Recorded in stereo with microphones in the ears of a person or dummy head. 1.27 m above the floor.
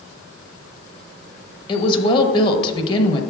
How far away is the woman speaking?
About 0.9 m.